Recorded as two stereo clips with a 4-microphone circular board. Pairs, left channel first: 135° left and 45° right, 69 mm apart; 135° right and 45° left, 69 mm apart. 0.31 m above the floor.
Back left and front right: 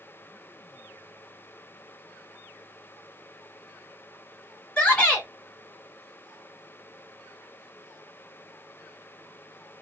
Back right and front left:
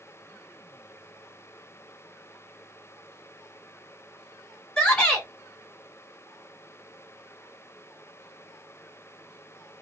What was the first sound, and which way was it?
A shout, straight behind.